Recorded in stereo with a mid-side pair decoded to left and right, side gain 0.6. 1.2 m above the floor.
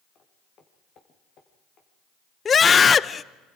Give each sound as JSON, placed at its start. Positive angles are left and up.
{"t": 0.1, "sound": "footsteps", "azimuth_deg": 45, "distance_m": 4.5}
{"t": 2.5, "sound": "a scream", "azimuth_deg": 30, "distance_m": 0.6}